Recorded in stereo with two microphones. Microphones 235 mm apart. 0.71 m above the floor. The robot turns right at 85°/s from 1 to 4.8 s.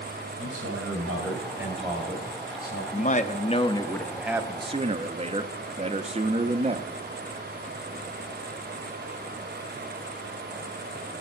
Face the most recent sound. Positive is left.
turn(degrees=-125)